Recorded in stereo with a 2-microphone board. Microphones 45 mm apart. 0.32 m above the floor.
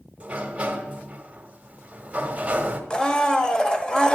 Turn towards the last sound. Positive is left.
turn(degrees=15)  # may be behind; listen again after turning